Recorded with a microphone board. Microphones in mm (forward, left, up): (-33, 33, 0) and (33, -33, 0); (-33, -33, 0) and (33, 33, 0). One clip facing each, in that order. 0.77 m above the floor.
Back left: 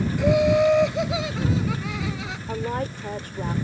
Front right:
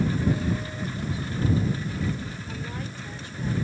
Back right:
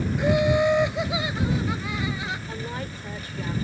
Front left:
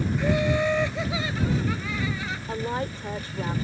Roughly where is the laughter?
Behind left.